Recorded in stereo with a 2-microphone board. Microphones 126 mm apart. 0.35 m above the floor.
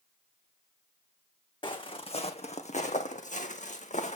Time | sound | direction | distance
1.6 | footsteps | 40° left (ahead or behind) | 1.3 m